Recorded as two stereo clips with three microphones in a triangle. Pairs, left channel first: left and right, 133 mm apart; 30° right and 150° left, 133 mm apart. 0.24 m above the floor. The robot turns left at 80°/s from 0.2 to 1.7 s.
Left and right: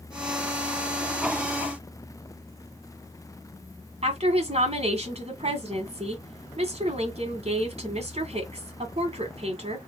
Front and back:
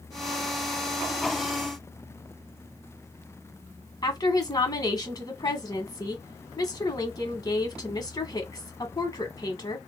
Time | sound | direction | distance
4.0 | a woman speaking | 80° right | 1.9 m